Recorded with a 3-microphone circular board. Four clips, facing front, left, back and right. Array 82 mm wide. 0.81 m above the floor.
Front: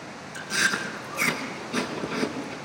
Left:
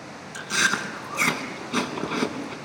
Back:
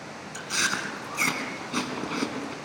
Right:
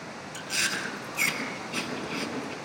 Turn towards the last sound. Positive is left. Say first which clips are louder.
# left 8 dB, front 3 dB
turn(degrees=110)